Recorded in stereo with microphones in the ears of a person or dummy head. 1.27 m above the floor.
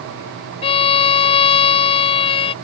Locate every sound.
0.6 s a violin: 30° left (ahead or behind)